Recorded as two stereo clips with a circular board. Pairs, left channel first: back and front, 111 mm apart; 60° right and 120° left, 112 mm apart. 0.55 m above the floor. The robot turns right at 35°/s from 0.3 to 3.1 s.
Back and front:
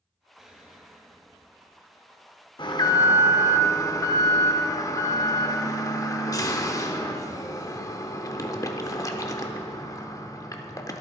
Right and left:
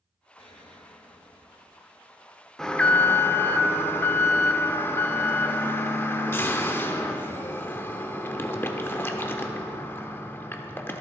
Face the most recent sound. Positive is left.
turn(degrees=-125)